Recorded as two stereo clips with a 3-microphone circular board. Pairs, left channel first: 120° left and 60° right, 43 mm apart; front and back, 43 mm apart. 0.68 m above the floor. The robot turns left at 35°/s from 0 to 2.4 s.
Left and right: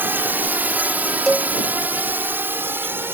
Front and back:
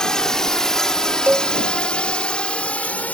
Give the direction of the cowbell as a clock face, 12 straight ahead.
5 o'clock.